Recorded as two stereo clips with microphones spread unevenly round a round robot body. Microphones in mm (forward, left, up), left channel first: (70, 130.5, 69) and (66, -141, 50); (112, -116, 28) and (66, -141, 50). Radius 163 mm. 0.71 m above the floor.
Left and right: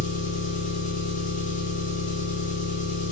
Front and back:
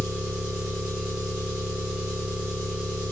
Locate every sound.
0.0 s an engine running: 95° left, 0.8 m